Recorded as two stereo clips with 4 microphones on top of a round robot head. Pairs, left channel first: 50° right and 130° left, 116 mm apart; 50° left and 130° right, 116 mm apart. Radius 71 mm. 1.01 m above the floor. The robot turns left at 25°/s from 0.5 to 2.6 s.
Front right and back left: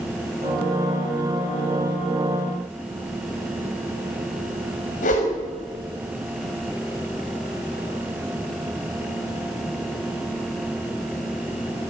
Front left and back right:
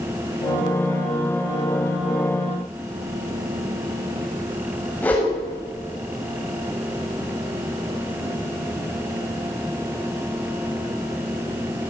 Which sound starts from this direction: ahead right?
A whoosh, at 5.0 s.